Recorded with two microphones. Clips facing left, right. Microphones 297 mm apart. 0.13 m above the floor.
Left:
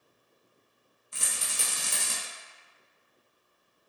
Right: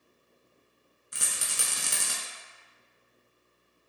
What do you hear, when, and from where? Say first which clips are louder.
1.1 s a rattle: even; 20° right (ahead or behind), 0.6 m